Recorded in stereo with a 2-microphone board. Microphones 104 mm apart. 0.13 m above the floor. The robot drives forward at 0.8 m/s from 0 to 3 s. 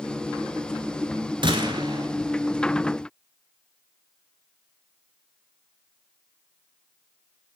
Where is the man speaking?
No man speaking in this recording.